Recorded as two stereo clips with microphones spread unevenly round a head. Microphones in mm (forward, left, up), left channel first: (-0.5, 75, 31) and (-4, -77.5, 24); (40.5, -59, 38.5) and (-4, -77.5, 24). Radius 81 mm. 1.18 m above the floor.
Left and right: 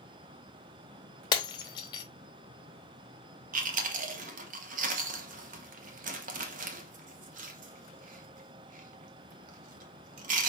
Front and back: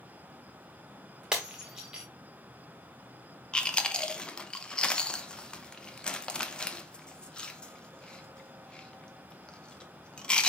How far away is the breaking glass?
About 0.6 m.